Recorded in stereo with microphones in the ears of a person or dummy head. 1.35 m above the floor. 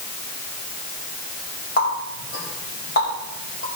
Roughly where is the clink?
No clink in this recording.